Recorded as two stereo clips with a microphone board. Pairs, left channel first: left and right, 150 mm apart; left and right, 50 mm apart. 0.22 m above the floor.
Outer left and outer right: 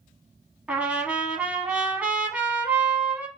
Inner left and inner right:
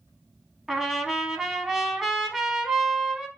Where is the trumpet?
10° right (ahead or behind), 0.5 m.